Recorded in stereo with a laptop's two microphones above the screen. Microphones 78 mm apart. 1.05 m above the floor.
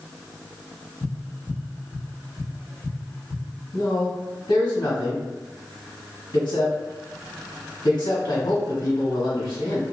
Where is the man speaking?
70° left (ahead or behind), 1.6 m.